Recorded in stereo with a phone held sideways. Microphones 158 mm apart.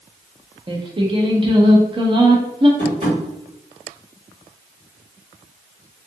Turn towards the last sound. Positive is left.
turn(degrees=-50)  # may be behind; listen again after turning